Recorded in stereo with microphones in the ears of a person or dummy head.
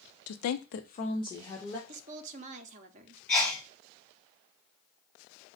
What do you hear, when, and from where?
0.3 s a woman speaking: 80° left, 0.6 m; by 1.8 s 5° left (ahead or behind), 1.2 m
1.9 s a woman speaking: 35° right (ahead or behind), 0.6 m
3.3 s a sneeze: 5° left (ahead or behind), 2 m